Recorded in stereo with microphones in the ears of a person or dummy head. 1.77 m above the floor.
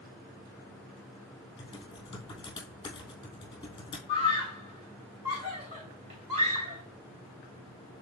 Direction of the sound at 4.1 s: 30° right (ahead or behind).